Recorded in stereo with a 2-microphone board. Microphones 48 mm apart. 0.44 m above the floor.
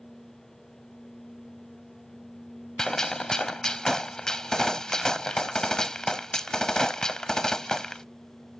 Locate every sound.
2.8 s a gunshot: 15° left (ahead or behind)